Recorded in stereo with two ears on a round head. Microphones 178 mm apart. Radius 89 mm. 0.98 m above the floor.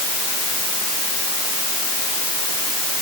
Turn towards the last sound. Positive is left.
No sound to turn to.